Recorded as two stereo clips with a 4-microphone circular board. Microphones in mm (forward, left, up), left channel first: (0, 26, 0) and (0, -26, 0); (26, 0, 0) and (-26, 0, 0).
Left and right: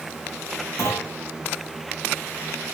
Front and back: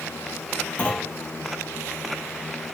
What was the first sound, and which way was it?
A clunk, 65° left.